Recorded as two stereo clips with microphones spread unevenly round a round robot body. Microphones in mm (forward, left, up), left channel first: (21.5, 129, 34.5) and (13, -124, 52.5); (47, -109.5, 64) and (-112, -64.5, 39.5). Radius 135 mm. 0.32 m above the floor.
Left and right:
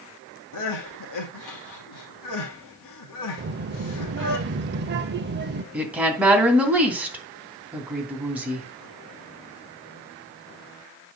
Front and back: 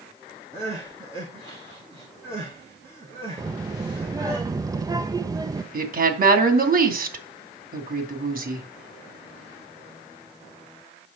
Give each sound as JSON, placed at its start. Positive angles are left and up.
{"t": 0.5, "sound": "crying", "azimuth_deg": 95, "distance_m": 3.0}
{"t": 3.4, "sound": "a child speaking", "azimuth_deg": -135, "distance_m": 0.6}
{"t": 5.7, "sound": "a woman speaking", "azimuth_deg": 180, "distance_m": 2.5}